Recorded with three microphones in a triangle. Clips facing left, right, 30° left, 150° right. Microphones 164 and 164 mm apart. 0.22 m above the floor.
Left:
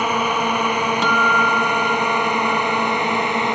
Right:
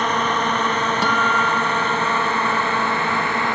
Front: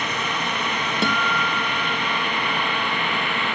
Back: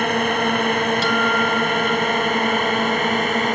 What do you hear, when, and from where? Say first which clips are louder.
0.0 s a drone: left 1 dB, back 8 dB; 170° left; by 3.6 s 160° left
1.0 s a guitar: left 2 dB, back 5 dB; 10° right